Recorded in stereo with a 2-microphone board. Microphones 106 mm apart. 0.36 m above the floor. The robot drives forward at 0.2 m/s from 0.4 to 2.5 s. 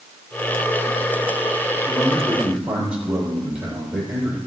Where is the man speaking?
10° right (ahead or behind), 8 m.